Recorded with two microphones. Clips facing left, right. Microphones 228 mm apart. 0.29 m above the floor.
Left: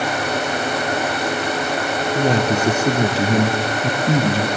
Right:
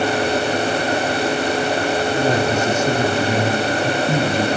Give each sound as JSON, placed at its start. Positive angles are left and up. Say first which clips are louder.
{"t": 2.1, "sound": "a man speaking", "louder": "left 3 dB", "side_deg": 35, "distance_m": 5.0}